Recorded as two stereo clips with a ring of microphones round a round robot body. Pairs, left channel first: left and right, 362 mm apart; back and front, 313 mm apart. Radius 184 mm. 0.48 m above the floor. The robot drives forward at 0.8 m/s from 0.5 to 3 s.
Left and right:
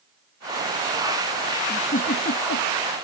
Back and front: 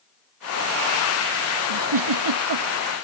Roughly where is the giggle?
Ahead.